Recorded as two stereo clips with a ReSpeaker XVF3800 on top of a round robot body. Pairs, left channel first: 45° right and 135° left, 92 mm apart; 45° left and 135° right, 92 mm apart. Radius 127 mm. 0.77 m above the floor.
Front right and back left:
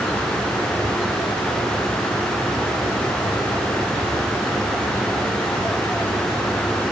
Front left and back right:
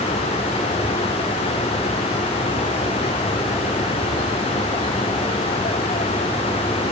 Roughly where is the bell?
I don't hear a bell.